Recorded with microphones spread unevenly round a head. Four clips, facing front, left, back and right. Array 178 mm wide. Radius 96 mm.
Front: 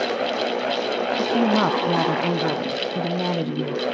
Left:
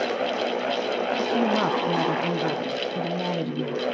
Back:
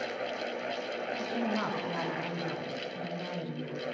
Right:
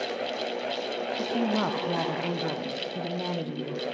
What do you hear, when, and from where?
0.0 s a fan: 25° left, 0.9 m
1.2 s a woman speaking: 10° left, 0.9 m